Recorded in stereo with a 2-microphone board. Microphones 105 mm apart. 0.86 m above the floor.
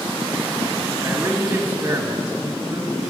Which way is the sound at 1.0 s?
15° right (ahead or behind).